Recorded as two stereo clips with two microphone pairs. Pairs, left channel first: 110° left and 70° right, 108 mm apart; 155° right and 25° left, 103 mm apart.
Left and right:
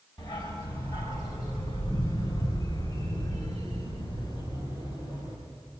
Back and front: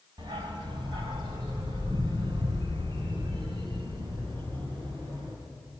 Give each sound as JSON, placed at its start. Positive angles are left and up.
{"t": 0.2, "sound": "a dog barking", "azimuth_deg": 65, "distance_m": 3.0}